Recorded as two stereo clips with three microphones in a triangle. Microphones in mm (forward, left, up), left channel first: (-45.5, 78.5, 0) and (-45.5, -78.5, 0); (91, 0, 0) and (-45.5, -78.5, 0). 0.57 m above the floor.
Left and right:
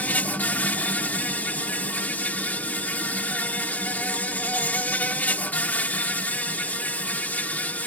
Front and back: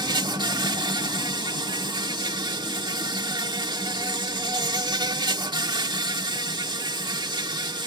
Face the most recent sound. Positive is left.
turn(degrees=165)